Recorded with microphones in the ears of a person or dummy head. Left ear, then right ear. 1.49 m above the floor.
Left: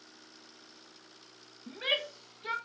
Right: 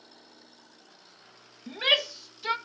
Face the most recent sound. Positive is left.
turn(degrees=-35)  # may be behind; listen again after turning